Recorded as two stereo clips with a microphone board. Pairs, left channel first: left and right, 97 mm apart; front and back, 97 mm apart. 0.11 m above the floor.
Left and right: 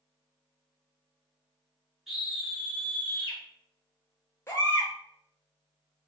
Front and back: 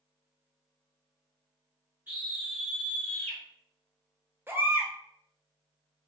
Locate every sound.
2.1 s a scream: 175° right, 1.2 m; by 3.4 s 40° left, 1.5 m
4.5 s a baby crying: 130° left, 0.8 m